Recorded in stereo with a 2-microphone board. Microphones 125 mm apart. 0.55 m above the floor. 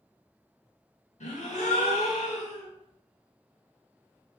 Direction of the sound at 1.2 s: 70° left (ahead or behind).